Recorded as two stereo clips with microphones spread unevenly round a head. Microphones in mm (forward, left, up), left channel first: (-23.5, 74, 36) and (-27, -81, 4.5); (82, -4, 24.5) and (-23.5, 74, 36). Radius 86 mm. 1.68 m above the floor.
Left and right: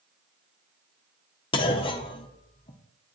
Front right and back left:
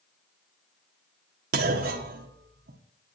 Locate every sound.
1.5 s a clunk: 145° left, 1.4 m